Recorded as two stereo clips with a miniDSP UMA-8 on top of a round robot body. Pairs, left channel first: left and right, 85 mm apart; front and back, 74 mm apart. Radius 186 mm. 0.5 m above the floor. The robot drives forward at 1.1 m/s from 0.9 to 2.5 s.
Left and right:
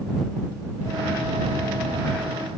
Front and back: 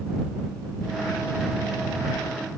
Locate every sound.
Only background noise.